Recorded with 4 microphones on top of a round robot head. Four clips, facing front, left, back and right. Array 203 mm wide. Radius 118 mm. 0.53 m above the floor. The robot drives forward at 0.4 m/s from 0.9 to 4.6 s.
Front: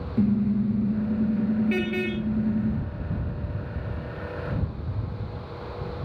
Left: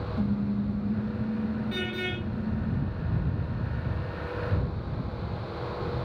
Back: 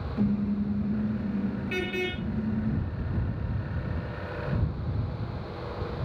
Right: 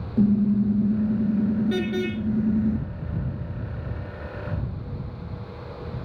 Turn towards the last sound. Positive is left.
turn(degrees=-75)